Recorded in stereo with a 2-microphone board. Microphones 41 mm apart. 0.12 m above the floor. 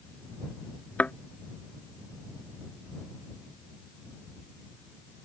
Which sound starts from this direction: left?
A thud, at 1.0 s.